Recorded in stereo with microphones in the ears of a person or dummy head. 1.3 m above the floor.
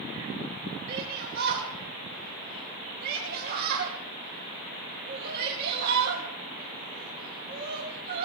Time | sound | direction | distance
0.9 | a shout | 55° right (ahead or behind) | 2.5 m